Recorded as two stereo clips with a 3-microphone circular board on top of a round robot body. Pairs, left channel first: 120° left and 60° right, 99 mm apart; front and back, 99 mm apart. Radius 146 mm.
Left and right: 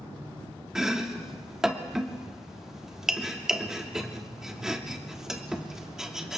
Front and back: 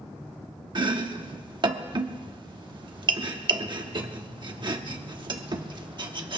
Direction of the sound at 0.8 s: 145° right.